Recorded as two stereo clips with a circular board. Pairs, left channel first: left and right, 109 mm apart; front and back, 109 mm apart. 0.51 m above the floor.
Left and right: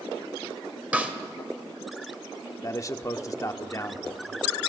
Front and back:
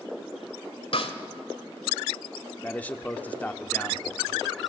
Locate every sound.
0.9 s a snare drum: 15° right, 1.9 m
2.6 s a man speaking: 65° left, 1.2 m